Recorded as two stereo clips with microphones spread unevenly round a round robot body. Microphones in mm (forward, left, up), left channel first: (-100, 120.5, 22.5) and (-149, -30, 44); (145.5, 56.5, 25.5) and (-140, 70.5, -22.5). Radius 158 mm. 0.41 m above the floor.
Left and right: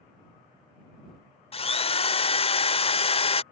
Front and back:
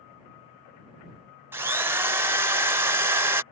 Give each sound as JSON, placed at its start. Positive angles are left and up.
{"t": 1.5, "sound": "a drill", "azimuth_deg": 105}